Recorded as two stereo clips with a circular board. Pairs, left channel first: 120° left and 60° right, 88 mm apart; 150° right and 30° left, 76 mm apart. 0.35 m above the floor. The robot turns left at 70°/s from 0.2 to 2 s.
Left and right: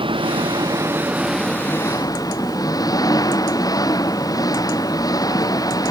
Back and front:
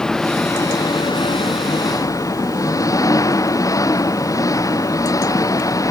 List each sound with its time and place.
0.0 s an engine running: 70° right; by 5.9 s 165° left